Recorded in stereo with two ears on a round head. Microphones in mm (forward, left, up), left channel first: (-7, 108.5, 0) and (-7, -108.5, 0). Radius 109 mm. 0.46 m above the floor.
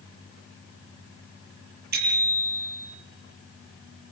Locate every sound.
1.9 s a bicycle bell: 45° right (ahead or behind), 8 m